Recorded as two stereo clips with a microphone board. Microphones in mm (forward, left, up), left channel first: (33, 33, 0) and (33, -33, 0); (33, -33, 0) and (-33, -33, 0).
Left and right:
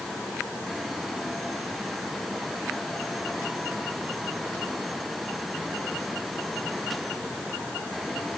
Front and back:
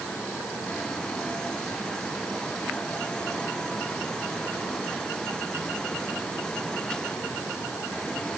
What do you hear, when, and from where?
Only background noise.